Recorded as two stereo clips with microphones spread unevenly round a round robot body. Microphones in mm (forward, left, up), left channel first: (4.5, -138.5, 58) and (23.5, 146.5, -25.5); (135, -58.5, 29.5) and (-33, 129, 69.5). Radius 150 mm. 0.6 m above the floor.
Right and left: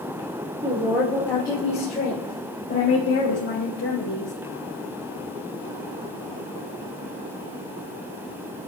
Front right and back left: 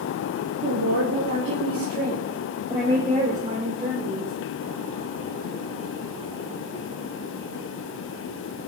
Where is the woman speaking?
145° left, 1.8 m; by 4.3 s 135° right, 4.5 m.